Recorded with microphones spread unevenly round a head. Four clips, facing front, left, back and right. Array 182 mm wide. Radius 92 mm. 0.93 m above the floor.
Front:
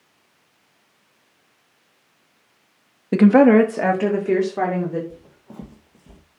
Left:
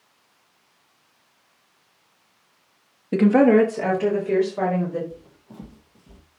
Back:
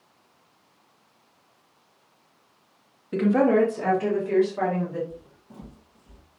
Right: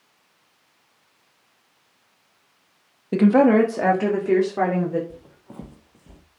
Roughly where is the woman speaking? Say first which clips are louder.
Even, front 8 dB; ahead.